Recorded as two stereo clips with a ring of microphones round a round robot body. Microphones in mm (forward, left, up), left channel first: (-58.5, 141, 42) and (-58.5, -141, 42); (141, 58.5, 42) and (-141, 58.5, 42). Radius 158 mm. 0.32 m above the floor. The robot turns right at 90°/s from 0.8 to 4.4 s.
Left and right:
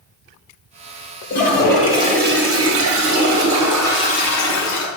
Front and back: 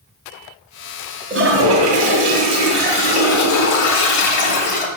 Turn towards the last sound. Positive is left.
turn(degrees=55)